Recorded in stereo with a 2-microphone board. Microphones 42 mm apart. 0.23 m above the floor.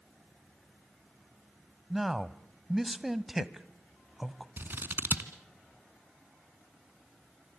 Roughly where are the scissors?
Right.